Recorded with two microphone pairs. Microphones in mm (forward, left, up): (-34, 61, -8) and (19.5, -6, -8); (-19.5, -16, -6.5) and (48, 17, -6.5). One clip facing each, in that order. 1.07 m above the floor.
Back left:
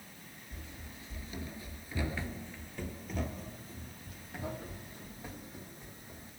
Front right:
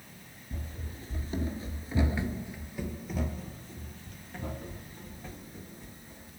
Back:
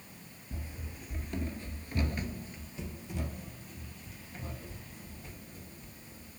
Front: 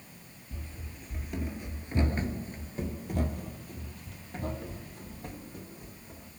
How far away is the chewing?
No chewing in this recording.